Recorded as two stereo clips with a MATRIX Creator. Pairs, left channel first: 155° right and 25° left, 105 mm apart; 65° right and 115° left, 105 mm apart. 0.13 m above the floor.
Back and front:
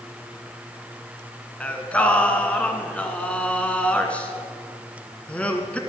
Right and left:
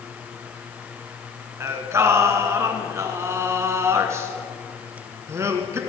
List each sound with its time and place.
1.6 s singing: 135° left, 1.6 m